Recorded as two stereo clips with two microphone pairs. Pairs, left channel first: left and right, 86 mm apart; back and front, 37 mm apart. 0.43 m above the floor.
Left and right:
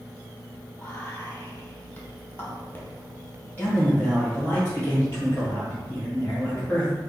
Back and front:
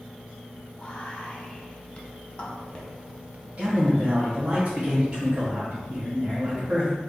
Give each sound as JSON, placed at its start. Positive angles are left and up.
{"t": 0.8, "sound": "whispering", "azimuth_deg": 140, "distance_m": 0.9}
{"t": 3.6, "sound": "a man speaking", "azimuth_deg": 30, "distance_m": 1.4}